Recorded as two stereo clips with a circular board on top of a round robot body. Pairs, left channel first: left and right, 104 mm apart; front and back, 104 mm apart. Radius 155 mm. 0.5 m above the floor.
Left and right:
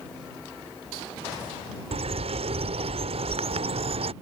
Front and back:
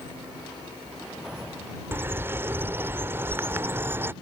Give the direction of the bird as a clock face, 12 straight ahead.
4 o'clock.